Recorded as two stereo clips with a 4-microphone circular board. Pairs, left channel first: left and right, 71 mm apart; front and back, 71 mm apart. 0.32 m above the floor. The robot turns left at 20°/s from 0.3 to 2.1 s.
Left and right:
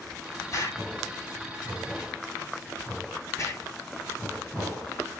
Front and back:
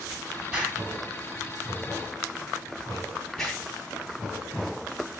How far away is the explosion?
About 1.2 m.